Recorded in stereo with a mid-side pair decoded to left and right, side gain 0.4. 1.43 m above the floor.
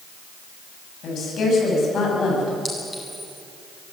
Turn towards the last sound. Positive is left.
turn(degrees=10)